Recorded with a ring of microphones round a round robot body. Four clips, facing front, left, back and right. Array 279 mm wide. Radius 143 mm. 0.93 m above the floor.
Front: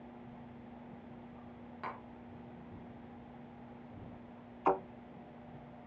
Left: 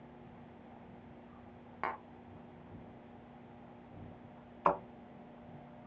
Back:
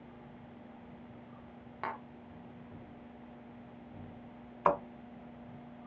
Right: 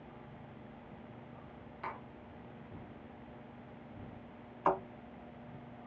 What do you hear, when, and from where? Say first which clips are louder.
1.8 s tapping: left 4 dB, back 5 dB; 120° left, 1.0 m
4.7 s a thud: even, back 2 dB; 155° left, 3 m